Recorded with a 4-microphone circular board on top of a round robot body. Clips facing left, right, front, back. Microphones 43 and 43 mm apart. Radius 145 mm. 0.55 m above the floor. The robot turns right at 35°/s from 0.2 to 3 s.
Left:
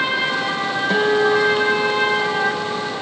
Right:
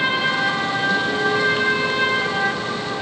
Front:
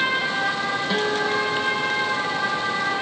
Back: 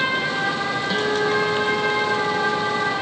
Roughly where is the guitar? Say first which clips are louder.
Left 7 dB, back 3 dB; left.